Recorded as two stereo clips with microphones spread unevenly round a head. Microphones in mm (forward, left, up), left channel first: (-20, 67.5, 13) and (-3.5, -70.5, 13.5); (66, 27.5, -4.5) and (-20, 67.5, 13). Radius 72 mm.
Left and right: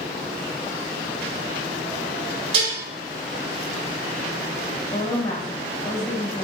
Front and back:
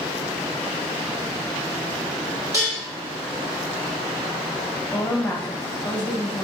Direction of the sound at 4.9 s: 45° left.